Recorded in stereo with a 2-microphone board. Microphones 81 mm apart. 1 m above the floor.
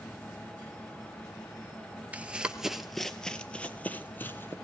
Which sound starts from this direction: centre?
Running footsteps, at 2.1 s.